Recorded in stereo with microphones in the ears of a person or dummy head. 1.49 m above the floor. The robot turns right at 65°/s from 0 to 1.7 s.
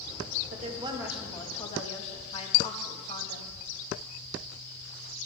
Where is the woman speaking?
45° right, 1.9 m; by 3.5 s 35° left, 1.9 m.